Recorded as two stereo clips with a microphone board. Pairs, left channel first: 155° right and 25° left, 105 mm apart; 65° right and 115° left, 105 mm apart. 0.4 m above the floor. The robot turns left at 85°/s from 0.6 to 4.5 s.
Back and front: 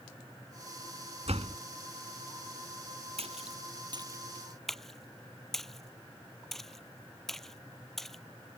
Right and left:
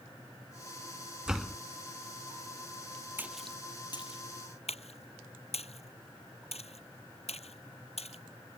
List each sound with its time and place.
1.3 s a door slam: 35° left; by 1.6 s 5° left
3.2 s a splash: 40° left; by 8.6 s 70° right